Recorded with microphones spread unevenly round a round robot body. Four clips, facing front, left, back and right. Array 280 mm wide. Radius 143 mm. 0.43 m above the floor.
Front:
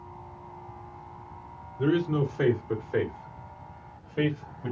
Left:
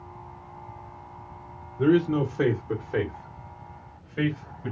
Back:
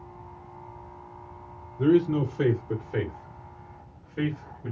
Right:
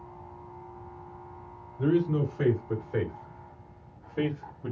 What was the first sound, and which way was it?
A man speaking, 110° left.